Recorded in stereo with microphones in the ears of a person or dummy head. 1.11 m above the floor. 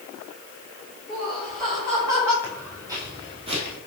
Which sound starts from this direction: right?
Laughter, at 1.1 s.